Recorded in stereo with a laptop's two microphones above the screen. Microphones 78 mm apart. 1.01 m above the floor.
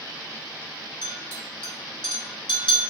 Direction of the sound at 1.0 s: 65° left (ahead or behind).